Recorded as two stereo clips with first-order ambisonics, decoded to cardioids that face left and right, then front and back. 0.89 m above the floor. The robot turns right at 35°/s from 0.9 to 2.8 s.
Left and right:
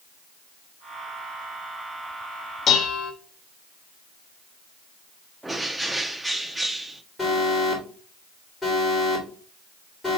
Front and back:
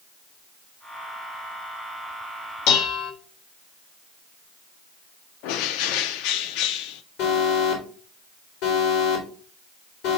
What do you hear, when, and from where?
2.7 s dishes clattering: 30° left, 0.9 m; by 3.1 s 35° left, 0.9 m
5.4 s a bird: 5° right, 0.5 m
7.2 s an alarm: 5° left, 3.5 m